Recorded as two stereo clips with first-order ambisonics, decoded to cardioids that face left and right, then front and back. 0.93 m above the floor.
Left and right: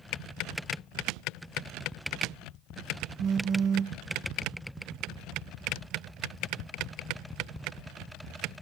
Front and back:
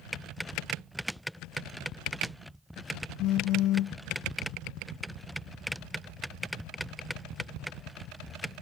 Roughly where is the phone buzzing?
Ahead right.